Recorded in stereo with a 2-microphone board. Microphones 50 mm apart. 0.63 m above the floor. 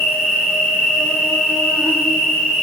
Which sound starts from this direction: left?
An insect, at 0.0 s.